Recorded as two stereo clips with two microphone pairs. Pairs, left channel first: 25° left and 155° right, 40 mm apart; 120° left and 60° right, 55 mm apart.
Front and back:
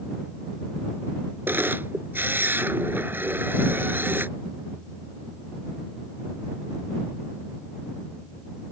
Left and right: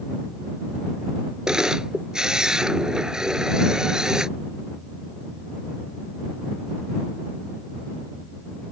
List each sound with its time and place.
1.5 s a camera shutter: 135° right